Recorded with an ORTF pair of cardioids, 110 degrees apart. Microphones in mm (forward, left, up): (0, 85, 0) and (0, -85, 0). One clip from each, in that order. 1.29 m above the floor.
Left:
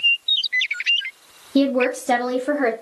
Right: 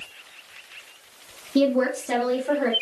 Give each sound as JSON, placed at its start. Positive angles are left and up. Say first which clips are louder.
{"t": 1.6, "sound": "a woman speaking", "louder": "left 2 dB", "azimuth_deg": 20, "distance_m": 0.7}